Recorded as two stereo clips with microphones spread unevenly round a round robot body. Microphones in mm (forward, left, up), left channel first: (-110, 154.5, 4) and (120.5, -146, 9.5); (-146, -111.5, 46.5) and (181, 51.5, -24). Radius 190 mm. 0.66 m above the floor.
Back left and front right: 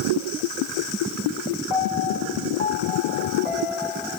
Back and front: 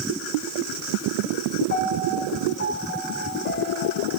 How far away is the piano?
About 2 m.